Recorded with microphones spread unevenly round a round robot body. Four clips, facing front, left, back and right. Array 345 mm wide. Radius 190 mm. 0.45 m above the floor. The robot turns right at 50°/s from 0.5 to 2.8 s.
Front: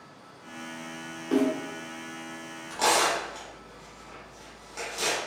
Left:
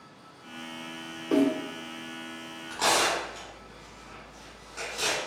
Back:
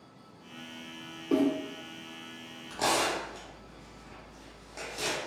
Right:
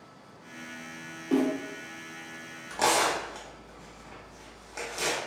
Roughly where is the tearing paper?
Behind right.